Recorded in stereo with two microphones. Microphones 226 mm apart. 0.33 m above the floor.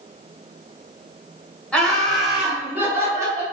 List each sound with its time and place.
1.7 s laughter: 5° left (ahead or behind), 1.8 m; by 3.4 s 15° right (ahead or behind), 1.5 m